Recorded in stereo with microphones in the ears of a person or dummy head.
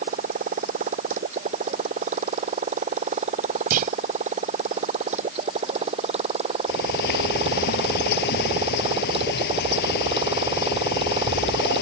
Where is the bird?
60° left (ahead or behind).